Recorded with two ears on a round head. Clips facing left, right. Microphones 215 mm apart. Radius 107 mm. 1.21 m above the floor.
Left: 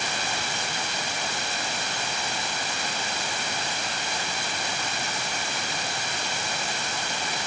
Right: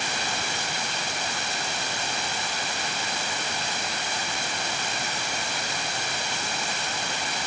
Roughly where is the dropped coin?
I don't hear a dropped coin.